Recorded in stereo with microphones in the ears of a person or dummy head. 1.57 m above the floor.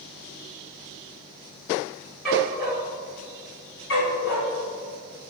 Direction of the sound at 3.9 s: 60° left (ahead or behind).